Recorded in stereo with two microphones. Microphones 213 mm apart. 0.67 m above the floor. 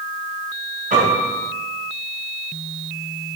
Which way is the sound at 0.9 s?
40° right (ahead or behind).